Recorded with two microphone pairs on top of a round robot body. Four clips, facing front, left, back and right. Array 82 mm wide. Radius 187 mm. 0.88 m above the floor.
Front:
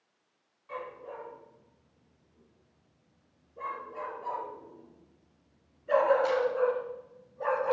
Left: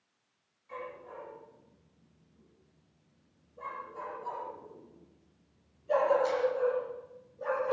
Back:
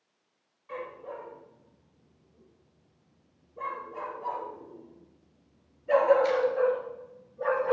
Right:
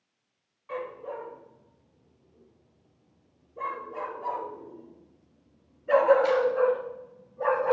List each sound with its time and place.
0.7 s a dog barking: 85° right, 8.5 m; by 7.7 s 65° right, 1.5 m